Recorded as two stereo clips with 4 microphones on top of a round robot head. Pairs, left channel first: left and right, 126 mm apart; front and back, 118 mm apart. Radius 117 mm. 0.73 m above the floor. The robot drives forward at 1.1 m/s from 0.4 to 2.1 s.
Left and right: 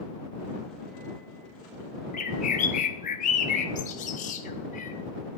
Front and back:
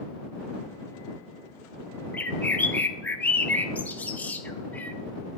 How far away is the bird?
About 0.6 m.